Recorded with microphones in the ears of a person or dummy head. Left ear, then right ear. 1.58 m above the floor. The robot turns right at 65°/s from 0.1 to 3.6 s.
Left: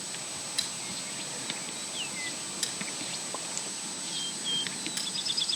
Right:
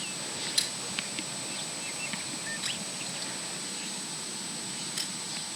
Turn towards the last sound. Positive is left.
turn(degrees=40)  # may be behind; listen again after turning